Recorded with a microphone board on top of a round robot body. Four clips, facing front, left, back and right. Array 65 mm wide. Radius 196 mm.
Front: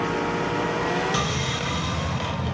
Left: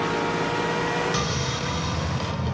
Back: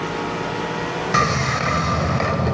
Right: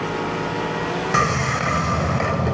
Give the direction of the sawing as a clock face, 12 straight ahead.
5 o'clock.